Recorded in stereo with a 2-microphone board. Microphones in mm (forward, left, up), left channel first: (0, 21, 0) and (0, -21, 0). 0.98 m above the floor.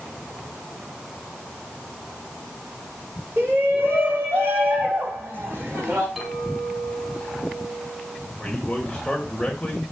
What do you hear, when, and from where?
3.4 s a shout: 80° right, 4.5 m; by 6.1 s 65° right (ahead or behind), 6.5 m
6.2 s a clink: centre (ahead or behind), 4.5 m
8.4 s a man speaking: 20° left (ahead or behind), 3.5 m